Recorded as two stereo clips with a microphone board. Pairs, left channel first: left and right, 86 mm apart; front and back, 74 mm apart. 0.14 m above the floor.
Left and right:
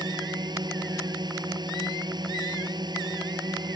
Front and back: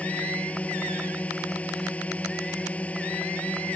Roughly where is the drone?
Right.